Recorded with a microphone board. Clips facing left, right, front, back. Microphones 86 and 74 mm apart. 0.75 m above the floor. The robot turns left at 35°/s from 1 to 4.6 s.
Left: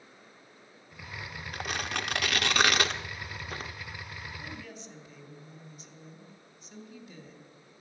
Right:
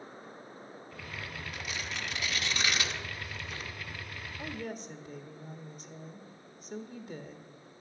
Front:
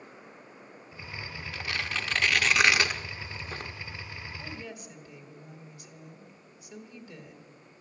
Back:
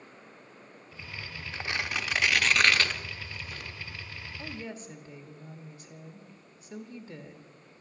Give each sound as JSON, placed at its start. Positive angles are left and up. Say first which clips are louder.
{"t": 1.5, "sound": "tearing paper", "louder": "left 8 dB, back 1 dB", "azimuth_deg": 120, "distance_m": 0.7}
{"t": 4.4, "sound": "a woman speaking", "louder": "right 5 dB, back 1 dB", "azimuth_deg": -120, "distance_m": 1.5}